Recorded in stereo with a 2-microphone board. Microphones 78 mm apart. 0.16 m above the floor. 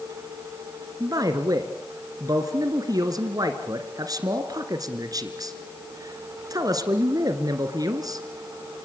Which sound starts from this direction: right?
A man speaking, at 1.0 s.